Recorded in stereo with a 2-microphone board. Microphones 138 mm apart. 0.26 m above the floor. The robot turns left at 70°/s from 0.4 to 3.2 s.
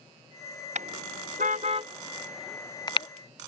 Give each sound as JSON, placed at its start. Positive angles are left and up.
{"t": 0.8, "sound": "a car horn", "side_deg": -60}